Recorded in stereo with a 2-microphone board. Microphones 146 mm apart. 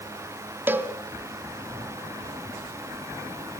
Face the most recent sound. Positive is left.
turn(degrees=-15)  # may be behind; listen again after turning